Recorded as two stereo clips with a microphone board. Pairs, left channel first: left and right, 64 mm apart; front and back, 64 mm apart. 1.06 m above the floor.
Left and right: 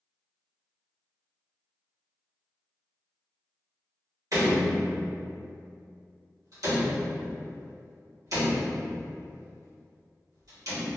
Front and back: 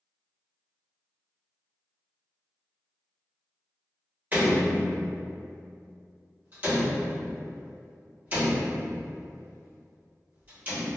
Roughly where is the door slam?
Behind right.